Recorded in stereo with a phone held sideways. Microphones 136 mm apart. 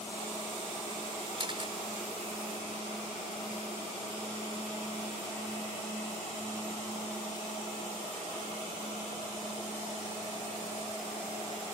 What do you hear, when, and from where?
1.4 s a camera shutter: 40° right (ahead or behind)